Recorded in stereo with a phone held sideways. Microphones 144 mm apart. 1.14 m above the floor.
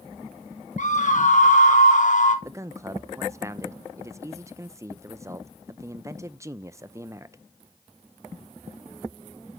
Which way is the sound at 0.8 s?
60° left (ahead or behind).